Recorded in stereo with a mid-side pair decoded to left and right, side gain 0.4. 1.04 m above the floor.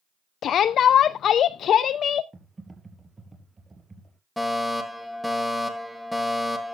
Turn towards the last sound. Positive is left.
turn(degrees=5)